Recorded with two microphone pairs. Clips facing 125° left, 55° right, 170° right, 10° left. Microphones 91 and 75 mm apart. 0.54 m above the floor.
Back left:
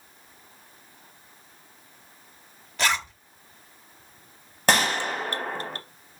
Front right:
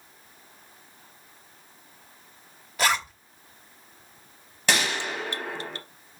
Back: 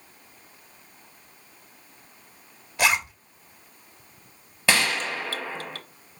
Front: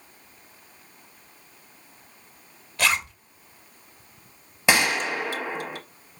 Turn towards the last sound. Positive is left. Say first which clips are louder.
# back left 4 dB, front 2 dB
turn(degrees=80)